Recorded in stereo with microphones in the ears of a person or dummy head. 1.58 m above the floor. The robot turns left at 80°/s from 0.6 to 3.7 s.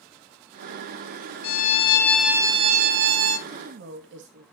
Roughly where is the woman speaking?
Right.